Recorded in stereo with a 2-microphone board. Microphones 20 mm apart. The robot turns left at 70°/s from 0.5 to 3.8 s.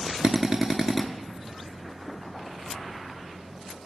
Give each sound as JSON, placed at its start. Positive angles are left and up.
{"t": 0.2, "sound": "a drill", "azimuth_deg": -135, "distance_m": 0.7}